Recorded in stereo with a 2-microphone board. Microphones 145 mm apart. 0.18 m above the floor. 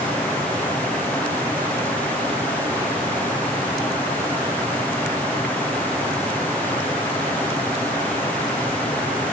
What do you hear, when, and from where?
Only background noise.